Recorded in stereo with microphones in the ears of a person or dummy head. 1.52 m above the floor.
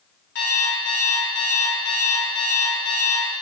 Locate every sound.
0.3 s an alarm clock: 60° left (ahead or behind), 2 m